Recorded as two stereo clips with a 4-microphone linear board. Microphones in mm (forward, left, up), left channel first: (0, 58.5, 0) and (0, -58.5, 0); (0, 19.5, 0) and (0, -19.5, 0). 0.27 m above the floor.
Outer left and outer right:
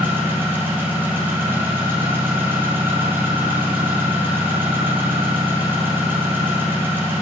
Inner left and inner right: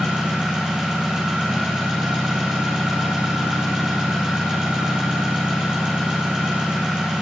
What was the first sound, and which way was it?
An engine running, 15° right (ahead or behind).